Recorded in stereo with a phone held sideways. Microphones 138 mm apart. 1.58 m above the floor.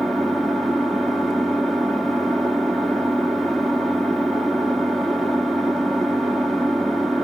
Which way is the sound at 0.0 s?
Centre (ahead or behind).